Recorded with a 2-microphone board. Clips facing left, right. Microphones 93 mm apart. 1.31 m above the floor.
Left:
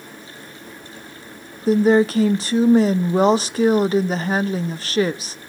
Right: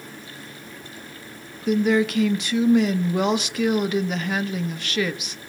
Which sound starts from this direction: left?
A woman speaking, at 1.7 s.